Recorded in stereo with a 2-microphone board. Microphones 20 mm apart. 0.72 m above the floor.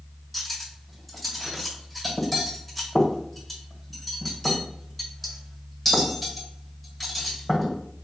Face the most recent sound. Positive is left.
turn(degrees=15)  # may be behind; listen again after turning